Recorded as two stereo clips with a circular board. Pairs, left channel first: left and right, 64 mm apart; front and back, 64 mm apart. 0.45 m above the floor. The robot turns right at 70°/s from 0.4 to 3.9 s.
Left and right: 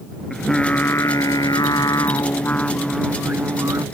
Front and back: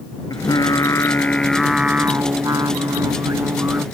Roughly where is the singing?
Ahead.